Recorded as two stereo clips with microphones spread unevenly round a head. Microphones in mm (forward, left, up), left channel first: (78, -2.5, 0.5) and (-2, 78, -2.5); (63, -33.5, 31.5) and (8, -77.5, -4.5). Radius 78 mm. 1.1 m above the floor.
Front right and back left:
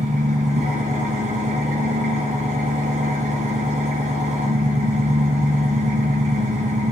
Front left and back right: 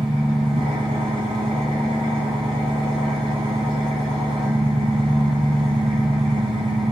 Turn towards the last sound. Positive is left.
turn(degrees=165)